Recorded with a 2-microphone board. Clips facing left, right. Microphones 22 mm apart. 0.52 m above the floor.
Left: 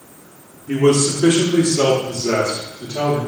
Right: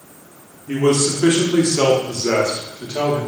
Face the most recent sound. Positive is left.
turn(degrees=-30)  # may be behind; listen again after turning